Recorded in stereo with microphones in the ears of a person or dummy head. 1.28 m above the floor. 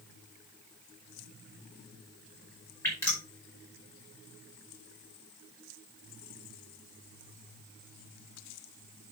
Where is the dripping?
15° left (ahead or behind), 5 m.